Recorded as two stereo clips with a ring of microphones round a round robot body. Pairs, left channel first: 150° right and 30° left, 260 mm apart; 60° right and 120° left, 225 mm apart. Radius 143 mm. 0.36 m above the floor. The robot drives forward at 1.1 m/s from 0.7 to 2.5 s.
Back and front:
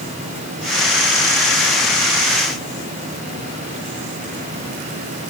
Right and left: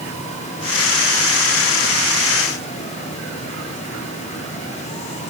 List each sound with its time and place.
Only background noise.